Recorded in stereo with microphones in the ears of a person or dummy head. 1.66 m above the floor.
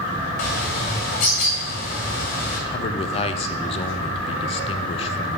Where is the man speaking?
30° left (ahead or behind), 0.5 m.